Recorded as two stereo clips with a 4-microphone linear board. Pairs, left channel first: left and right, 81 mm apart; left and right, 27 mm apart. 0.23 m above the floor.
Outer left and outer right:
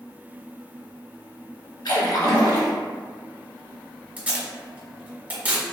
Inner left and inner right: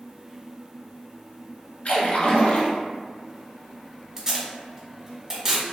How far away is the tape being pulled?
About 1.2 m.